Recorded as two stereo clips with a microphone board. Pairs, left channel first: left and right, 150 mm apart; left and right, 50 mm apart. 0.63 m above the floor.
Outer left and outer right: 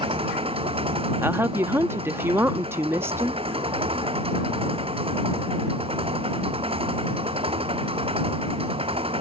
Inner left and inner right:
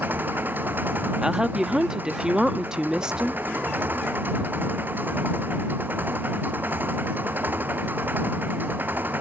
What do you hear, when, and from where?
0.0 s an engine running: 40° right (ahead or behind)
1.2 s a woman speaking: 15° right (ahead or behind)